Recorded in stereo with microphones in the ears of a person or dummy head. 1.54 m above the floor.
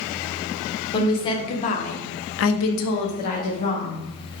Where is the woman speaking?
25° left (ahead or behind), 1.1 m.